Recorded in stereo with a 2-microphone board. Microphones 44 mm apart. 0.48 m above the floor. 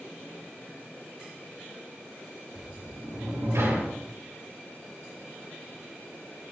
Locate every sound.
2.5 s a sliding door: 80° right, 4.5 m